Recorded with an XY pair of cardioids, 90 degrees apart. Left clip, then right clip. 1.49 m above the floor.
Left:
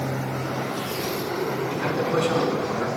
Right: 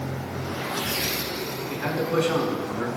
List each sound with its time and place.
1.7 s a man speaking: 5° left, 5 m